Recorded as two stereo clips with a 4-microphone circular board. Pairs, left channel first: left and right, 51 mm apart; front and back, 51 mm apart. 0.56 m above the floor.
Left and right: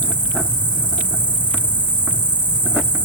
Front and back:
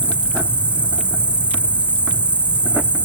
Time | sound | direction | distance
0.0 | an insect | 135° right | 2.5 m